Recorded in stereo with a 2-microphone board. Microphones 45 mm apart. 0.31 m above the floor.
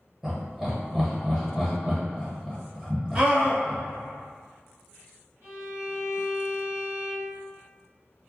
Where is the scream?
25° right (ahead or behind), 1.7 m.